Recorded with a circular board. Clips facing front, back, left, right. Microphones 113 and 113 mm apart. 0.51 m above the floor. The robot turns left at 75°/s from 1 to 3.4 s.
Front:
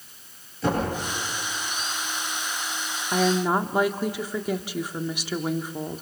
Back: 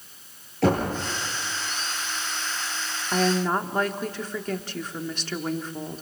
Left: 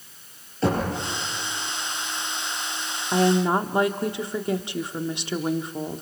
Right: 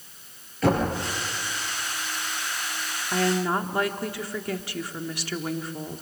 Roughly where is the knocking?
Behind left.